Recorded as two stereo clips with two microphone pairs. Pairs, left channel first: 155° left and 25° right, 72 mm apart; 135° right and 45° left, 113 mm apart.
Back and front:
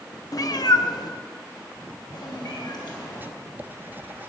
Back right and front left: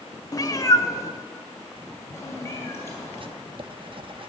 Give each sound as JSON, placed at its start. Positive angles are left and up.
{"t": 0.3, "sound": "a cat meowing", "azimuth_deg": 175, "distance_m": 0.7}
{"t": 3.2, "sound": "writing", "azimuth_deg": 30, "distance_m": 0.6}